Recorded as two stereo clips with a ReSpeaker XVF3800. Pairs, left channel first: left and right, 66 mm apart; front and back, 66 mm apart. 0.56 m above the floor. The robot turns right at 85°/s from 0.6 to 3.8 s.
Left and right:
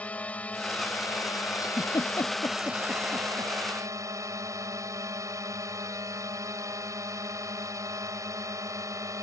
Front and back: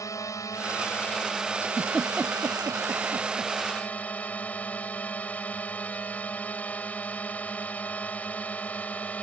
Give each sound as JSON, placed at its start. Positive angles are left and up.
{"t": 0.0, "sound": "a drone", "azimuth_deg": 25}
{"t": 1.6, "sound": "a giggle", "azimuth_deg": 60}